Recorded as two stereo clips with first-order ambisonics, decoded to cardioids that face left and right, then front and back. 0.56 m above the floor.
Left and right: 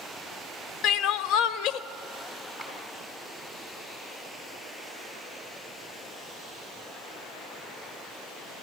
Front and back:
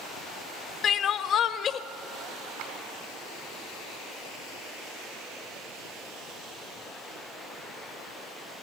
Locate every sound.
0.8 s crying: 55° left, 0.6 m
2.6 s a clap: 170° left, 5 m